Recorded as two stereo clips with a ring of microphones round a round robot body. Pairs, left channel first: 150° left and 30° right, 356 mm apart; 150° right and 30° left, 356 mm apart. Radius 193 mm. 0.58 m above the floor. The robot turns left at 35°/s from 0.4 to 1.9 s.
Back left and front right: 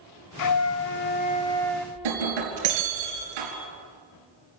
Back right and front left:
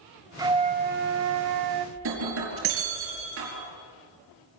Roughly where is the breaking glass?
Ahead right.